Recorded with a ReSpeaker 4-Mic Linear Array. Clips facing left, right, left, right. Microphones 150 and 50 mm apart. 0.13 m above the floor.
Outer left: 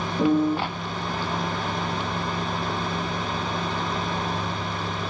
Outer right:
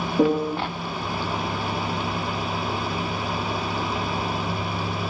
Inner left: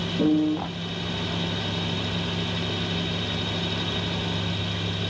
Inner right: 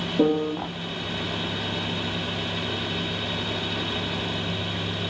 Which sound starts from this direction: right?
A piano, at 0.2 s.